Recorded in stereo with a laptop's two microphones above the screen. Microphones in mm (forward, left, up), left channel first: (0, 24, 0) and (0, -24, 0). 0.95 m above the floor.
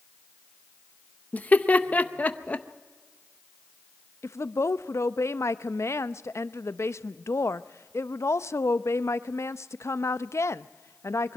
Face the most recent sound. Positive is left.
turn(degrees=70)  # may be behind; listen again after turning